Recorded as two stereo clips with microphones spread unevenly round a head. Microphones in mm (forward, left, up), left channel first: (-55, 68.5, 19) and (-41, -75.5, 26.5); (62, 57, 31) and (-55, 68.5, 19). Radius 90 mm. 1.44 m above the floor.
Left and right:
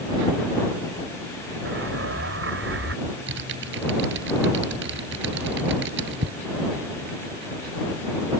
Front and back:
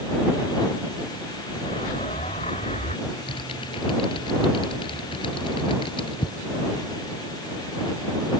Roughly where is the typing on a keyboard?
Right.